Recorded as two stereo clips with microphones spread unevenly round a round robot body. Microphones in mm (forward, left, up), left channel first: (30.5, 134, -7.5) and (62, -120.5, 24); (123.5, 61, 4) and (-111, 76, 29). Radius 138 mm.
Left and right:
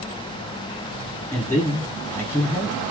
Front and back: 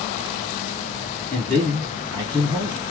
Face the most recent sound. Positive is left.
turn(degrees=55)